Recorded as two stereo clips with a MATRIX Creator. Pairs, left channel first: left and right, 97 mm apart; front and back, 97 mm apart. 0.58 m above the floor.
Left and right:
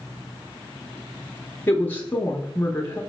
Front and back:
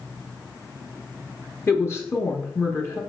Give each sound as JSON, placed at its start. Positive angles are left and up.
{"t": 1.7, "sound": "a woman speaking", "azimuth_deg": 35, "distance_m": 0.9}